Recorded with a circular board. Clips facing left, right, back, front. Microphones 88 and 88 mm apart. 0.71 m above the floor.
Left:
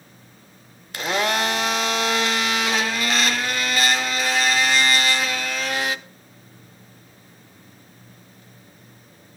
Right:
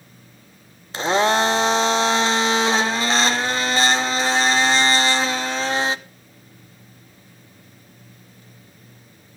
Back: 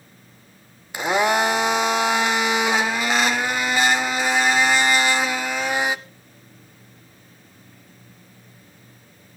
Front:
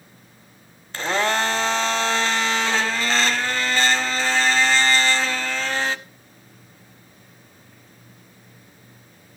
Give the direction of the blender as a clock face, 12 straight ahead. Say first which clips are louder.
Right 5 dB, back 3 dB; 4 o'clock.